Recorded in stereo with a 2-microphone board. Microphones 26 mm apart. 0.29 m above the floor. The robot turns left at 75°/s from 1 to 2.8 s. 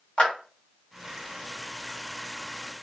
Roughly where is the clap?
Left.